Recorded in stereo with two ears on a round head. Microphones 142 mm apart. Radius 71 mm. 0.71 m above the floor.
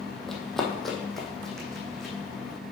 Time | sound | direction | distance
0.3 | running footsteps | 5° left (ahead or behind) | 1.2 m